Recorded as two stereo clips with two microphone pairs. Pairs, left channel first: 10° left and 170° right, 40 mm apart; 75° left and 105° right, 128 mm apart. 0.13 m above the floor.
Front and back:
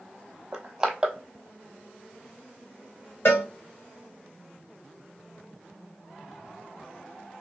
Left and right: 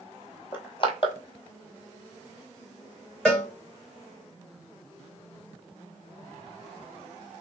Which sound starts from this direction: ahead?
A cowbell, at 3.2 s.